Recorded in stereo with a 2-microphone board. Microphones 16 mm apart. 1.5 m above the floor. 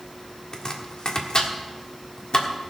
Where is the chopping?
45° left (ahead or behind), 1.5 m.